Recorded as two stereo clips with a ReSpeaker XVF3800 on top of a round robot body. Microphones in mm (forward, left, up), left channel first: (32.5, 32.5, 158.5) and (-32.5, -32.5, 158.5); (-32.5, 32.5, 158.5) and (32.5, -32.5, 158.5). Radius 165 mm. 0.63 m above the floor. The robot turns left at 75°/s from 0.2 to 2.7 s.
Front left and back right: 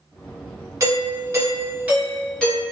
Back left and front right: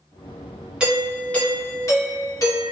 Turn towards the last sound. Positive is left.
turn(degrees=95)